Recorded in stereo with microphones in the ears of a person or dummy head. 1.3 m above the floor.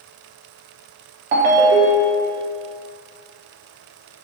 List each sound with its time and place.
1.3 s a ringtone: 40° right (ahead or behind), 0.6 m